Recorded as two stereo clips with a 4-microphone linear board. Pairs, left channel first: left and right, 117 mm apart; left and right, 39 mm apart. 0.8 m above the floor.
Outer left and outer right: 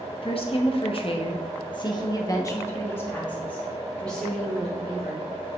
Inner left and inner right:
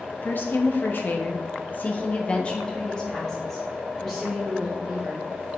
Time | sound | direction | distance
0.2 | a woman speaking | 50° left (ahead or behind) | 1.1 m